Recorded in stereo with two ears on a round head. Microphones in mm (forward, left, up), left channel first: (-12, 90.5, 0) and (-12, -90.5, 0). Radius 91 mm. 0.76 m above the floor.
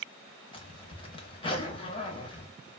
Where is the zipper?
25° left (ahead or behind), 0.8 m.